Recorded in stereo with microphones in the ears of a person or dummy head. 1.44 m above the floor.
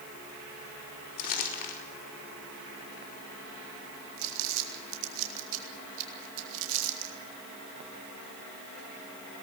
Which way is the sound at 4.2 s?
80° right.